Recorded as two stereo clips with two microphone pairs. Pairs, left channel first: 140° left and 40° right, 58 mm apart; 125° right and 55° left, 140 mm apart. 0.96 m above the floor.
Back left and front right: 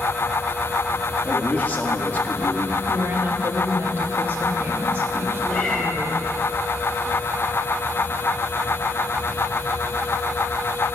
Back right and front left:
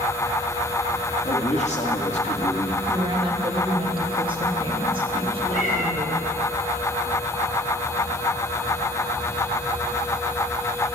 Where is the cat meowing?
145° right, 2.5 m.